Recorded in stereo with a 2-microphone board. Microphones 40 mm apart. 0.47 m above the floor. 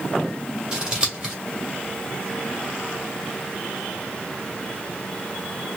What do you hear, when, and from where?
0.7 s scissors: 20° right (ahead or behind), 1.8 m